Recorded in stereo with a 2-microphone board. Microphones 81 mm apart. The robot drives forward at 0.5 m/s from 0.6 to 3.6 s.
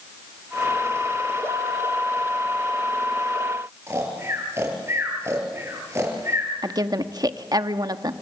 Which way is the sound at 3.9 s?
35° right (ahead or behind).